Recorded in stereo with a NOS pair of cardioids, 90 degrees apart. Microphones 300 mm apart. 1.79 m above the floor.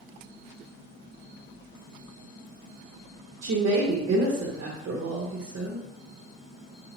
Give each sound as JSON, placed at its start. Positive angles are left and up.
{"t": 3.4, "sound": "a woman speaking", "azimuth_deg": -45, "distance_m": 0.7}